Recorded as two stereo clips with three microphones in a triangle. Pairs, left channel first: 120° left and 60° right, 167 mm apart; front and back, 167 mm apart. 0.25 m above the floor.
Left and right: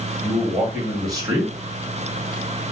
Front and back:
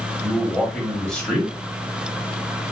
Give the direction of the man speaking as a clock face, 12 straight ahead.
3 o'clock.